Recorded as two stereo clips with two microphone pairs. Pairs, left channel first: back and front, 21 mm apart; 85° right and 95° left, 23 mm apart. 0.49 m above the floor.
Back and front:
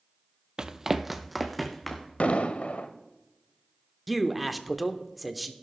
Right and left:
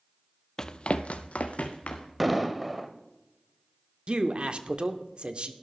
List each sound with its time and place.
0.6 s running footsteps: 30° right, 0.6 m; by 2.1 s 100° right, 1.8 m
2.2 s an explosion: straight behind, 0.9 m
4.1 s a man speaking: 80° left, 0.9 m